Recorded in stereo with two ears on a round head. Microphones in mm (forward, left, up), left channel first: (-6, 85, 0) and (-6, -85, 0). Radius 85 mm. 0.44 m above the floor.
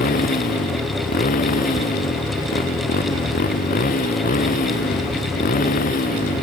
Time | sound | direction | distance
0.0 | a motorcycle | 45° left (ahead or behind) | ?